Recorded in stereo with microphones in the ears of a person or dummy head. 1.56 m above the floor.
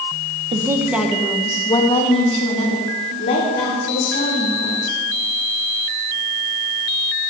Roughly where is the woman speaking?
Right.